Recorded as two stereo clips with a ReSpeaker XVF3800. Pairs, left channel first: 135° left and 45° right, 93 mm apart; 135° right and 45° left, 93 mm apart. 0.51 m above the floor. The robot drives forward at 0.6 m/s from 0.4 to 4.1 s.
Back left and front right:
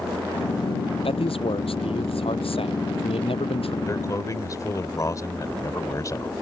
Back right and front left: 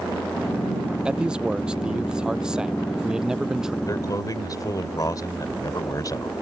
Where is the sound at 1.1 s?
125° left; by 3.8 s 130° left.